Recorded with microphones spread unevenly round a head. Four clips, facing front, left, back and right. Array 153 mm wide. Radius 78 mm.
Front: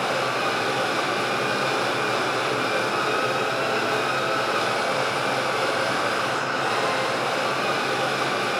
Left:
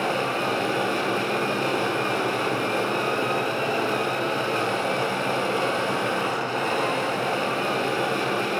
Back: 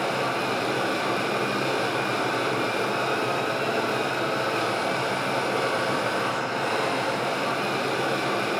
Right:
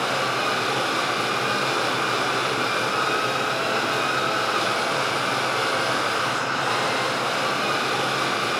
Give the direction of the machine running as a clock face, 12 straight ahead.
9 o'clock.